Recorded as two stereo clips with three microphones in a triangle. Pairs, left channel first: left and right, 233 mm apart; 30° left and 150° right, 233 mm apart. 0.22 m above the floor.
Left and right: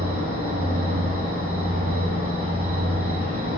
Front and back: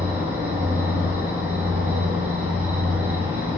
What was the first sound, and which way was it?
An insect, 70° right.